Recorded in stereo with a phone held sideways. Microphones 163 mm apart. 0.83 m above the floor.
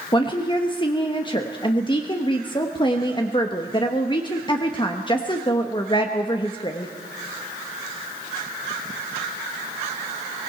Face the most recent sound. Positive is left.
turn(degrees=30)  # may be behind; listen again after turning